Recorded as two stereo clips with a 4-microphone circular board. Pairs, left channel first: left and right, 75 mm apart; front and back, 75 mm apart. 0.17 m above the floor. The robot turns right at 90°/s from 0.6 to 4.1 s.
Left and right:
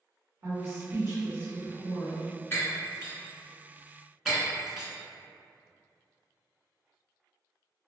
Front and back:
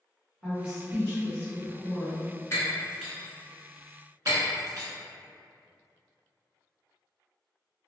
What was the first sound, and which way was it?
A woman speaking, 110° right.